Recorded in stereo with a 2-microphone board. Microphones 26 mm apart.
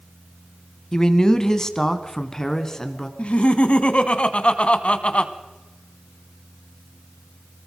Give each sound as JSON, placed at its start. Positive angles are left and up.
{"t": 0.9, "sound": "a man speaking", "side_deg": 25, "distance_m": 1.5}
{"t": 3.2, "sound": "laughter", "side_deg": 45, "distance_m": 1.6}